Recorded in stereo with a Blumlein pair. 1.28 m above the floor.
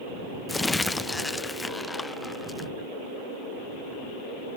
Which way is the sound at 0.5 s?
10° left.